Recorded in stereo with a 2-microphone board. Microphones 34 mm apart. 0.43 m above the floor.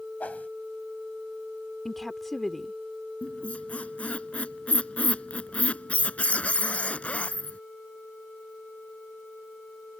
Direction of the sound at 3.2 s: 40° left (ahead or behind).